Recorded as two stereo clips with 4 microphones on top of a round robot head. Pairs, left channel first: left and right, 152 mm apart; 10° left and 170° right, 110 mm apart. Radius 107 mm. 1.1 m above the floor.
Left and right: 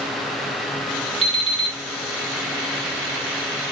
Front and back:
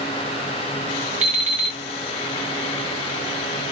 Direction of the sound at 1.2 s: 150° right.